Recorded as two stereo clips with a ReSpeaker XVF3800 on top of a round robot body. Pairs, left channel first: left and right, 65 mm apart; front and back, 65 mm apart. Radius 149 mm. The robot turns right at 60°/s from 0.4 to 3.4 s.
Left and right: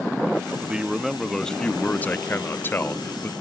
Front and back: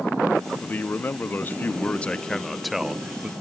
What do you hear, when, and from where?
0.6 s a man speaking: 35° right, 0.8 m; by 3.3 s 130° left, 0.8 m